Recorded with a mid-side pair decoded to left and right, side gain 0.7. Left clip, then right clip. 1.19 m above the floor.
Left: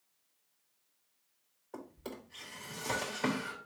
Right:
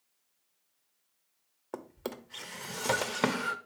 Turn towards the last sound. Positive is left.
turn(degrees=-55)